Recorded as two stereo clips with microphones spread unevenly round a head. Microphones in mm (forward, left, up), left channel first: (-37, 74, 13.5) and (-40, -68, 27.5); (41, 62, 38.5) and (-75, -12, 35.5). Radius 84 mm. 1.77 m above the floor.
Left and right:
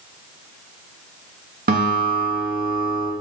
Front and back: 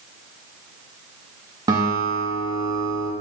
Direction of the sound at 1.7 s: 80° right.